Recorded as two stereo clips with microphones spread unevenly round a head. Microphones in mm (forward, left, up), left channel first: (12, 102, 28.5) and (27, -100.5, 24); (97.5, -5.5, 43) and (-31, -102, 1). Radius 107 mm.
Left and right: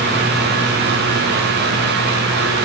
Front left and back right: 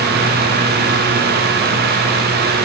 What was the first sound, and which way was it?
Only background noise.